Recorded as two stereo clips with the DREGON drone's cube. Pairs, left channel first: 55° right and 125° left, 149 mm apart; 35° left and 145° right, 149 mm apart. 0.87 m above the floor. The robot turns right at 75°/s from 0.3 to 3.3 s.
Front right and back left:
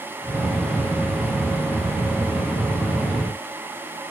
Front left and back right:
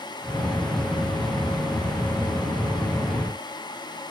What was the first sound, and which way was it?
Only background noise.